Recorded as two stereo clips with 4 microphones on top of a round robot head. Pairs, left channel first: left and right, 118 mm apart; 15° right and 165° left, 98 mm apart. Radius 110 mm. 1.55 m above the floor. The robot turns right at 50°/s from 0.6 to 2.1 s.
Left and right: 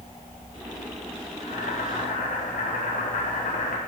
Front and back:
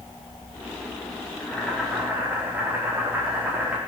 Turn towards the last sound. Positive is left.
turn(degrees=95)